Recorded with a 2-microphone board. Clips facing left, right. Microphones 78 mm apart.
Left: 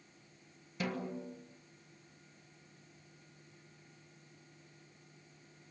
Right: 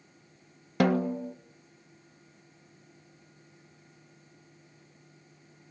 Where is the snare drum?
70° right (ahead or behind), 1.4 m.